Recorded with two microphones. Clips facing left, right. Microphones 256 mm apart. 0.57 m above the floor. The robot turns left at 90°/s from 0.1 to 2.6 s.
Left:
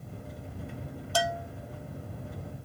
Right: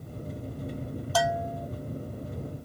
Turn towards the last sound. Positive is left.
turn(degrees=20)